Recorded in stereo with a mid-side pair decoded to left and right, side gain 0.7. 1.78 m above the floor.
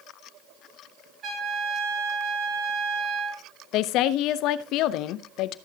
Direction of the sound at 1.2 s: 35° right.